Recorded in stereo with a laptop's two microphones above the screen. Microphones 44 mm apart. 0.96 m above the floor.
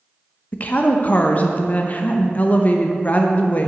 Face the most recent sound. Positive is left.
turn(degrees=35)  # may be behind; listen again after turning